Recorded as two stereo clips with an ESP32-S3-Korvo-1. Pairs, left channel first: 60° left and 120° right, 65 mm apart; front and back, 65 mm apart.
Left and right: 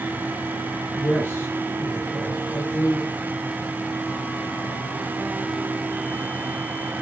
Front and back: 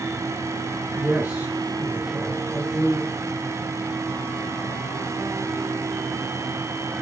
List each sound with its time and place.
0.9 s a woman speaking: 120° left, 3 m; by 3.1 s 105° left, 4.5 m